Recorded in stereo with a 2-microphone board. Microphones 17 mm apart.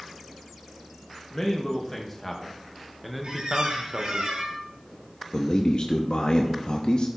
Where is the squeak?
60° right (ahead or behind), 3.5 m.